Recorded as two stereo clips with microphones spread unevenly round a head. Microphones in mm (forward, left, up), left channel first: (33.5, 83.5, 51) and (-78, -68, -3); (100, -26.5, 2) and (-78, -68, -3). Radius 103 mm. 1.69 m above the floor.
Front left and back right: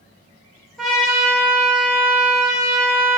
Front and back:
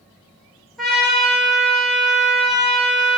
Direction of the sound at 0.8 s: 100° left.